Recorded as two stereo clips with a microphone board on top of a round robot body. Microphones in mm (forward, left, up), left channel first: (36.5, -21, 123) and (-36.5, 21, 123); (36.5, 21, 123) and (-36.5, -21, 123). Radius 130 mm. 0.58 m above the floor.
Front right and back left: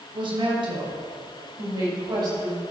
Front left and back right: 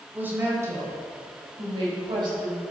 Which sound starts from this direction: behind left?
A woman speaking, at 0.1 s.